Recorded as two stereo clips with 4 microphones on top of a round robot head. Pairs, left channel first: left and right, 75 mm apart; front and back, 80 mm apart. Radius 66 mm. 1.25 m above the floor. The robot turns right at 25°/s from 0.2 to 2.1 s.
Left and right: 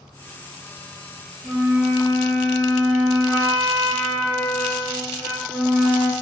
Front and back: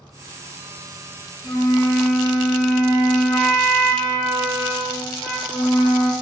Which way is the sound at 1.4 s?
45° right.